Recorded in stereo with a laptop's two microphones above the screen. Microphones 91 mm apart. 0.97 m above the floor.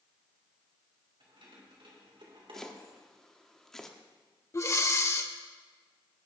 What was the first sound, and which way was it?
Keys jangling, 85° right.